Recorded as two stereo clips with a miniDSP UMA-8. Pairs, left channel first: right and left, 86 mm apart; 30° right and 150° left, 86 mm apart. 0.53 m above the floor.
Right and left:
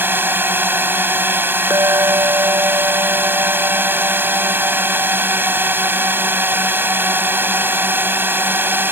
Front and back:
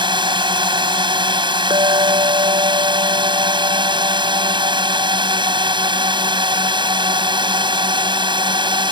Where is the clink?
135° left.